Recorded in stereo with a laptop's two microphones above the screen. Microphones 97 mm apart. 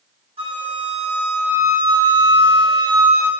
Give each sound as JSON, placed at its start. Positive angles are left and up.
{"t": 0.4, "sound": "a flute", "side_deg": -65, "distance_m": 1.1}